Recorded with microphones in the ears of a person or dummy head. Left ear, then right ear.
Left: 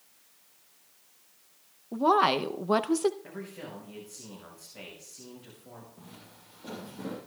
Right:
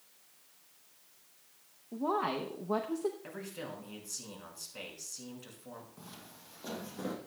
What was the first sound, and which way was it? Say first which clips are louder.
A woman speaking: left 10 dB; 75° left (ahead or behind).